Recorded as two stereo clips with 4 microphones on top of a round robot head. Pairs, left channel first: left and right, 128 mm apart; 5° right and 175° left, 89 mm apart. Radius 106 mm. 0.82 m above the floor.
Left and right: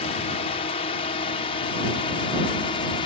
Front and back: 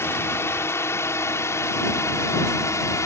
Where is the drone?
55° left; by 3.1 s 45° left.